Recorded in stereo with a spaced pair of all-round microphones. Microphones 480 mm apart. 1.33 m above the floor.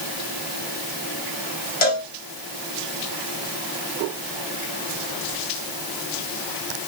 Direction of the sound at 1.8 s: 85° left.